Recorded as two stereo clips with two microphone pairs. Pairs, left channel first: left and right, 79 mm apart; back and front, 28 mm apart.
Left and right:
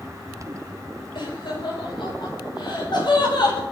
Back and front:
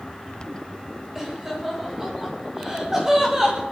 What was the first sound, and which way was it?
Laughter, 75° left.